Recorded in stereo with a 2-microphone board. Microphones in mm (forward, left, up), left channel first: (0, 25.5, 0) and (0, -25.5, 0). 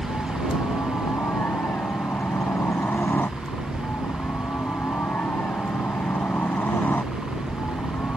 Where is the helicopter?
50° left (ahead or behind); by 8.2 s 40° left (ahead or behind).